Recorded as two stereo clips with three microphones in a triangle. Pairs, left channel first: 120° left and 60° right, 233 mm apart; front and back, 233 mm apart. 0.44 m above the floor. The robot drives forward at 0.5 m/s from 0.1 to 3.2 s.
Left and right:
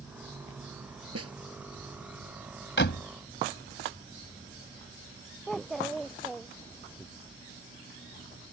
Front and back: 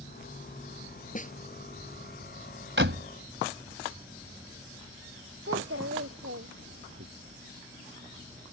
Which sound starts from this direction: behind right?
A child speaking, at 5.5 s.